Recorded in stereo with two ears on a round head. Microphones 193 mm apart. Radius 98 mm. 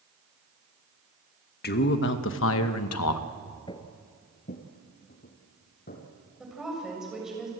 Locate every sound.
1.6 s a man speaking: 50° left (ahead or behind), 1.4 m; by 3.3 s 85° left, 1.2 m
3.7 s footsteps: 20° left (ahead or behind), 1.3 m; by 6.0 s 45° left (ahead or behind), 3.5 m
6.4 s a woman speaking: 5° right (ahead or behind), 6.5 m